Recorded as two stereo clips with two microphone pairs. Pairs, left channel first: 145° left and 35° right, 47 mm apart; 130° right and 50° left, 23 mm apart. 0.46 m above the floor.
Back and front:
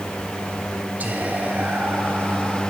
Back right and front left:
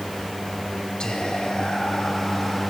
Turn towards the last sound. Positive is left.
turn(degrees=-85)